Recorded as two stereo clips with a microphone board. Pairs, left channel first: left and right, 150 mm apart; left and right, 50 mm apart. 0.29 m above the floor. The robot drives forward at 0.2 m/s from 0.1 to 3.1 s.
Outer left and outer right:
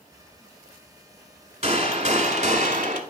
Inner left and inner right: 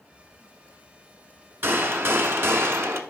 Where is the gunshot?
45° right (ahead or behind), 0.9 m; by 3.0 s 60° right (ahead or behind), 0.7 m.